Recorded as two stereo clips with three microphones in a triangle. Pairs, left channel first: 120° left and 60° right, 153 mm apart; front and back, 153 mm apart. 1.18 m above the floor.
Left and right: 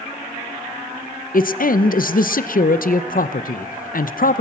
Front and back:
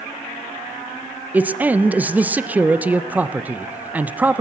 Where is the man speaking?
100° left, 0.6 m.